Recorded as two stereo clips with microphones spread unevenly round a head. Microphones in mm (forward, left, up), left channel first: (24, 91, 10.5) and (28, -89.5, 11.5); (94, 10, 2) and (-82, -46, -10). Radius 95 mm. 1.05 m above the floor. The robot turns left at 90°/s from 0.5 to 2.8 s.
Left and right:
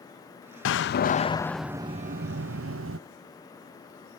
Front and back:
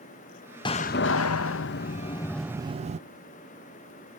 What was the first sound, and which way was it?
A door slam, 85° left.